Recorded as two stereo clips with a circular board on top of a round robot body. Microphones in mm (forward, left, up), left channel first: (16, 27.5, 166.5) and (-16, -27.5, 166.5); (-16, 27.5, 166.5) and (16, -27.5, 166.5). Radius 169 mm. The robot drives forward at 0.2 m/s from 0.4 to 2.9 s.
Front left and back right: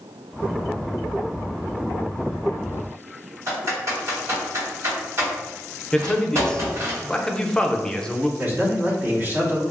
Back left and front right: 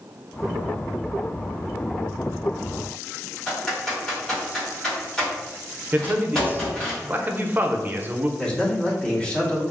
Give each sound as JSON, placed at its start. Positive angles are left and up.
{"t": 3.5, "sound": "typing on a keyboard", "azimuth_deg": -160, "distance_m": 1.7}
{"t": 5.9, "sound": "a man speaking", "azimuth_deg": -15, "distance_m": 0.5}
{"t": 8.4, "sound": "a man speaking", "azimuth_deg": -170, "distance_m": 1.2}